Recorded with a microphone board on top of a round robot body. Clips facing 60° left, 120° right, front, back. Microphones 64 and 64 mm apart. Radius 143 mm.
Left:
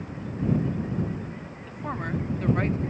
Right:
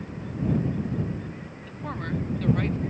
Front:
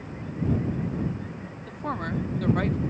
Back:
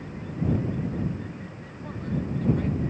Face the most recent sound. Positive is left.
turn(degrees=5)